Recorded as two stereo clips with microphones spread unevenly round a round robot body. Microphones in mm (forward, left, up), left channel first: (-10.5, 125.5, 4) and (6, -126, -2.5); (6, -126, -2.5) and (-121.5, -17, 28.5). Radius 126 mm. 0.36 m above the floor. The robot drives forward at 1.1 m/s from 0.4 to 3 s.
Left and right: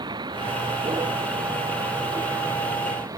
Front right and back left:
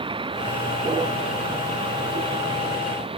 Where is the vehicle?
160° right; by 3.2 s 165° right.